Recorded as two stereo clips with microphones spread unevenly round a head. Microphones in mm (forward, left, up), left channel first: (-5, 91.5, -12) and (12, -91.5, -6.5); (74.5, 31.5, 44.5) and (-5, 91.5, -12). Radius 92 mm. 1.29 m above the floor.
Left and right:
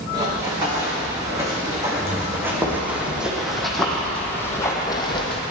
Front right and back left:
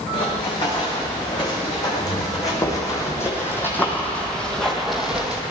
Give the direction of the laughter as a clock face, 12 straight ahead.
I don't hear laughter.